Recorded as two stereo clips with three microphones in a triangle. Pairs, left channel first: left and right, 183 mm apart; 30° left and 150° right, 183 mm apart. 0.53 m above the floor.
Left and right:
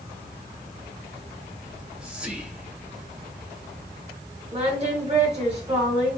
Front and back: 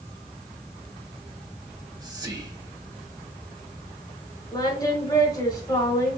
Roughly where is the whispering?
Behind.